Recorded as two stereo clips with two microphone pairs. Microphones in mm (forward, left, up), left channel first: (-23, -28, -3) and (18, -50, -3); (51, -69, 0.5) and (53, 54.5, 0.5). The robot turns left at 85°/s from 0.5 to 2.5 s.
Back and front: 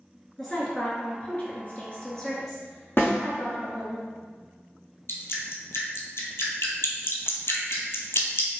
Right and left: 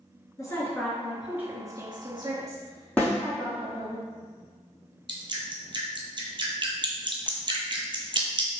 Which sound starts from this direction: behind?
A snare drum, at 3.0 s.